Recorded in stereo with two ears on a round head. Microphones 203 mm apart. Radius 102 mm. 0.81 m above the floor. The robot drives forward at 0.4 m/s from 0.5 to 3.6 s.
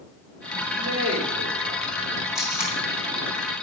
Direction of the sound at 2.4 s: 5° right (ahead or behind).